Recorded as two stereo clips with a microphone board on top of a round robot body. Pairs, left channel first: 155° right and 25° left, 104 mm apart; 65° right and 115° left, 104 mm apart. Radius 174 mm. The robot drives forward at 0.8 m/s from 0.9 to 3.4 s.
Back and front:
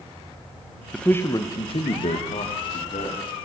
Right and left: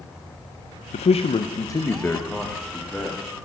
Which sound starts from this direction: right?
A man speaking, at 0.9 s.